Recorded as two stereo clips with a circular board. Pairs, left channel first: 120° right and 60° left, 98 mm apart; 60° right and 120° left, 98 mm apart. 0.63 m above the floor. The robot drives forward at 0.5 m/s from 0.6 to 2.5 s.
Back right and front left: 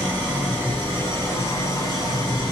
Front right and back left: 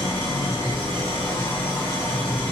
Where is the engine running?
50° right, 1.9 m; by 2.5 s 80° right, 1.5 m.